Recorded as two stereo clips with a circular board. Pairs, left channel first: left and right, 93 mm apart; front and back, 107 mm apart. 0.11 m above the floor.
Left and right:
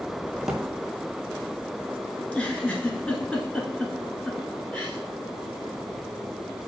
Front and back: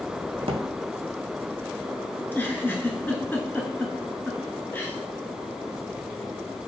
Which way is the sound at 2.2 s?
35° left.